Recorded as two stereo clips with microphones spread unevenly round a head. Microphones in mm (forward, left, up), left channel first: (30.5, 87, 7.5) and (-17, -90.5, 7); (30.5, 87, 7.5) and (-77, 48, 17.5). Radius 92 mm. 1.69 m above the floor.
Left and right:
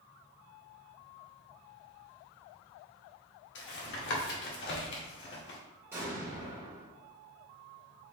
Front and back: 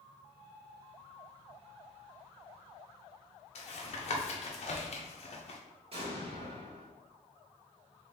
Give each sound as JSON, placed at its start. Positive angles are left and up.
{"t": 3.5, "sound": "tapping", "azimuth_deg": 45, "distance_m": 1.6}
{"t": 5.9, "sound": "an explosion", "azimuth_deg": 180, "distance_m": 2.5}